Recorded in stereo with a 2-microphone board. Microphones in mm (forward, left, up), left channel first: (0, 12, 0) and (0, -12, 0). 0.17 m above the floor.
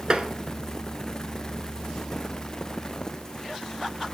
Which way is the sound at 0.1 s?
35° right (ahead or behind).